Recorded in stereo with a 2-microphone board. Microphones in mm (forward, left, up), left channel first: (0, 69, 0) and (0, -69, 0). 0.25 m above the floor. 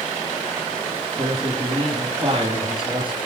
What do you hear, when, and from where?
1.2 s a man speaking: 35° right (ahead or behind), 4.5 m